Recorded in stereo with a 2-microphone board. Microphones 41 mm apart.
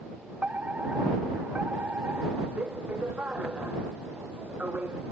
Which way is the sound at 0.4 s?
40° right (ahead or behind).